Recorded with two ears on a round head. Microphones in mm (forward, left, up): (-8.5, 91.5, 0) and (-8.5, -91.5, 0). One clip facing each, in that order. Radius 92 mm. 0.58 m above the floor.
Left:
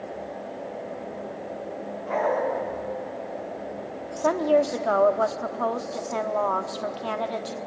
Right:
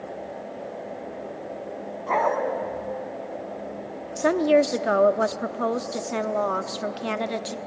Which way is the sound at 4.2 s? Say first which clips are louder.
Right 2 dB; 25° right (ahead or behind).